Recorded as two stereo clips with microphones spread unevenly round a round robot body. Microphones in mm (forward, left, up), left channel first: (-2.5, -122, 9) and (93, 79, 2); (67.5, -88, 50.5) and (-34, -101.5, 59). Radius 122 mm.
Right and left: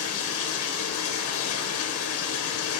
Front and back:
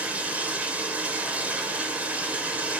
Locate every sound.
0.0 s running water: 95° right, 0.8 m